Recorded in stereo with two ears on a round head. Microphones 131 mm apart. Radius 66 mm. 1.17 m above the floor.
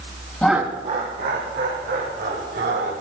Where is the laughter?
10° left (ahead or behind), 0.6 m; by 2.9 s 80° right, 4 m.